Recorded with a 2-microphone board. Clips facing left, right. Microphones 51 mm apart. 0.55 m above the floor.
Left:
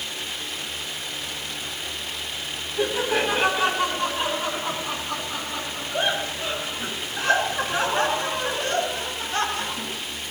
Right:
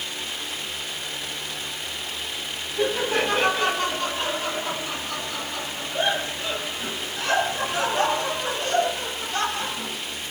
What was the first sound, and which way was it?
Laughter, 10° left (ahead or behind).